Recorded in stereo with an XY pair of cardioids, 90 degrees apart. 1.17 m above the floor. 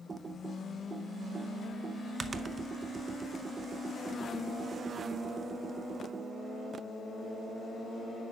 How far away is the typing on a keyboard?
About 0.7 m.